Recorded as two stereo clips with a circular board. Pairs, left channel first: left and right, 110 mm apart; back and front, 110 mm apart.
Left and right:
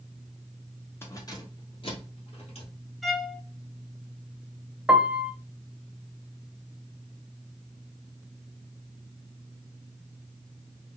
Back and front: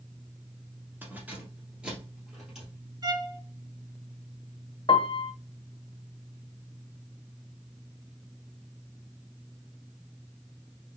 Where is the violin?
Straight ahead, 0.7 m.